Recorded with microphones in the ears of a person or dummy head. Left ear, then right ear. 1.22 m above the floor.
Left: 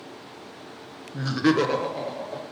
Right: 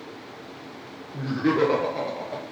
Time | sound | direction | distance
1.1 | laughter | 60° left (ahead or behind) | 0.8 m